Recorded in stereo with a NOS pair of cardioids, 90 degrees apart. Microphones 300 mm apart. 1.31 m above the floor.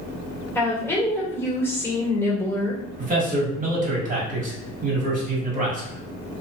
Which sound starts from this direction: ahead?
A woman speaking, at 0.6 s.